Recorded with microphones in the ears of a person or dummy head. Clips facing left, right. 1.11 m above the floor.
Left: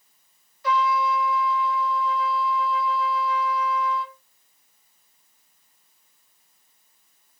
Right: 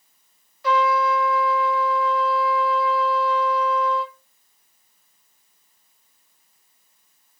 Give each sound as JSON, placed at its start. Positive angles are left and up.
{"t": 0.6, "sound": "a trumpet", "side_deg": -60, "distance_m": 1.2}